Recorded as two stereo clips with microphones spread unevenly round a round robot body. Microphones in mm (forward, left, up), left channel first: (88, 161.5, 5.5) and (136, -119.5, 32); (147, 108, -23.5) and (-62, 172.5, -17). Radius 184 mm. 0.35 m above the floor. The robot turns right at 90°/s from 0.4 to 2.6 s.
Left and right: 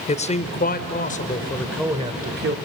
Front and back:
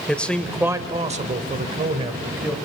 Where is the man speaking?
65° left, 1.0 m; by 2.6 s 105° right, 1.0 m.